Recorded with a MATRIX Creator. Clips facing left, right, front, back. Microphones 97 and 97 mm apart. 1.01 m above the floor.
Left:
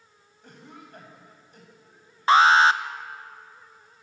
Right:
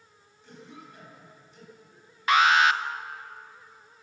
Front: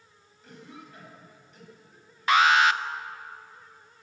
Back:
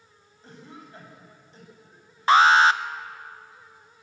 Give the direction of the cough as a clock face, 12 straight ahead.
8 o'clock.